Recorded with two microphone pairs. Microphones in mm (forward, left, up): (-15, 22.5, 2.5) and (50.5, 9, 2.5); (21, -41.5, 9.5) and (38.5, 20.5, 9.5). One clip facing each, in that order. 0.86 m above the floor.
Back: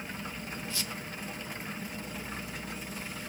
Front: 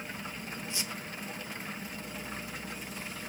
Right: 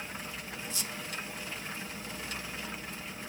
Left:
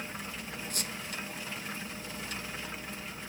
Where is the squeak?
50° left, 0.6 m.